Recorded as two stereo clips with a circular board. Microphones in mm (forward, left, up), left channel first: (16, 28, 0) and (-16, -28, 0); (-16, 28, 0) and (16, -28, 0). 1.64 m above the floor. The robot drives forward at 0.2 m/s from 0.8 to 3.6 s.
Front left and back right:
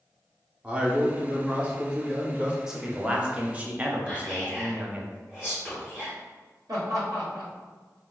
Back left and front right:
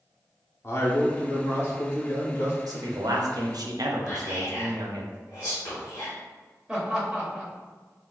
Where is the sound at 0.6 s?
165° left, 0.8 m; by 2.6 s 170° left, 1.1 m.